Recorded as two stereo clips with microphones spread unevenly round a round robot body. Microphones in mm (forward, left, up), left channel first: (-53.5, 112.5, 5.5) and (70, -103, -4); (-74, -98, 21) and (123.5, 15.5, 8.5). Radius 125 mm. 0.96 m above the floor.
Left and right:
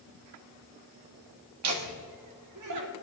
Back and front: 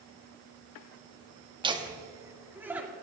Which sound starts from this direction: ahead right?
Laughter, at 1.6 s.